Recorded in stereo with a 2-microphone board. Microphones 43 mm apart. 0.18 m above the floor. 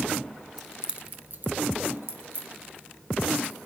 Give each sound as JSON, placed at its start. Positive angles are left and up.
{"t": 0.6, "sound": "keys jangling", "side_deg": 5, "distance_m": 0.7}